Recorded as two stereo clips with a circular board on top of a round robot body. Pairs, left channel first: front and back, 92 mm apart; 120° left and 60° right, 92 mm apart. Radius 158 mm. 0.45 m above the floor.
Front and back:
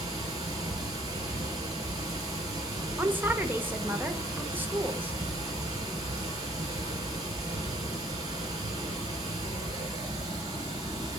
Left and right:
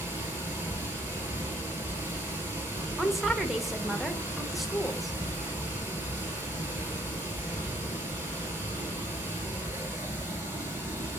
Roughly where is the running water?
Behind right.